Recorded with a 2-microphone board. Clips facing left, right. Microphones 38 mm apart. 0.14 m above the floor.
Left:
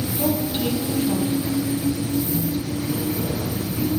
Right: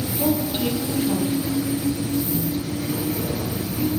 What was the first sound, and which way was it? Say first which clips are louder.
A woman speaking: right 1 dB; centre (ahead or behind).